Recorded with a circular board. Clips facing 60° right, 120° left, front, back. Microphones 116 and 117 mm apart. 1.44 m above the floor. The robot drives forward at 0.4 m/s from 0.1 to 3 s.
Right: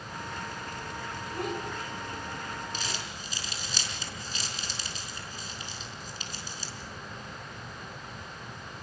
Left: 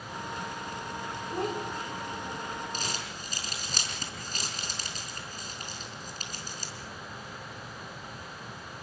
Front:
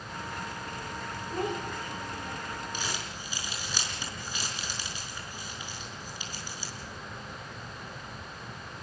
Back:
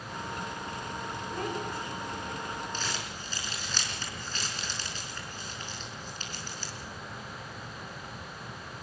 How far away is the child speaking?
About 4.5 m.